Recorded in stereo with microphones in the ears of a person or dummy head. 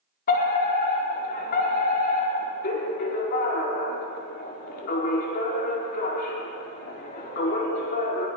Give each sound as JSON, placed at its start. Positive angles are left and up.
{"t": 0.3, "sound": "a fire alarm", "side_deg": 50, "distance_m": 5.0}